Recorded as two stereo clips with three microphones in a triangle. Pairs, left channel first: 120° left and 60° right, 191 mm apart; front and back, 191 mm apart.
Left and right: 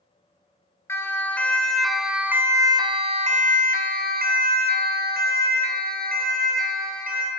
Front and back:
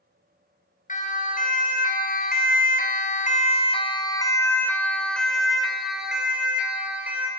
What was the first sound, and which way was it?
A siren, 45° left.